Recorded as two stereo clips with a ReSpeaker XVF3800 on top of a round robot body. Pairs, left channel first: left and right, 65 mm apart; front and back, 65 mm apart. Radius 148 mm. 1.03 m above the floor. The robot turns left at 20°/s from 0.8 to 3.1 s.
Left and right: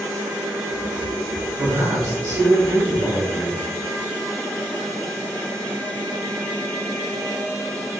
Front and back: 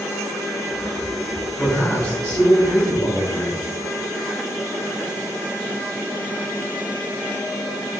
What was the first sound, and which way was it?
A man speaking, 65° right.